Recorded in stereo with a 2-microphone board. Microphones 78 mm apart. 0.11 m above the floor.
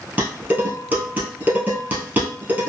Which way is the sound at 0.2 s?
25° right (ahead or behind).